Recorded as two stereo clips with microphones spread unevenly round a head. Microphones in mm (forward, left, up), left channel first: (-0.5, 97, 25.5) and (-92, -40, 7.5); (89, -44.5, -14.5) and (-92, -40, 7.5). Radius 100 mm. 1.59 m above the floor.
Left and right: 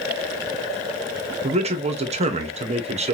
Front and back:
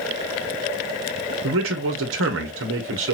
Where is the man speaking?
175° right, 1.5 m.